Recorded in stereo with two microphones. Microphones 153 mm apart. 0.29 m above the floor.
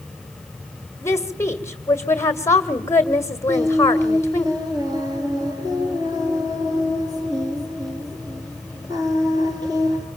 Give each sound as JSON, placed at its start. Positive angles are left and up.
{"t": 1.0, "sound": "a woman speaking", "side_deg": 15, "distance_m": 1.5}
{"t": 3.5, "sound": "singing", "side_deg": -25, "distance_m": 5.5}